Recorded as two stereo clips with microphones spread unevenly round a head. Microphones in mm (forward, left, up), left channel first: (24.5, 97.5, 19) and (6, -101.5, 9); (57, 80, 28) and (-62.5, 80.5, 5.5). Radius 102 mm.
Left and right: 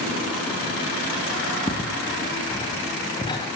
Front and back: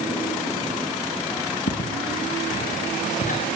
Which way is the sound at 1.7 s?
10° left.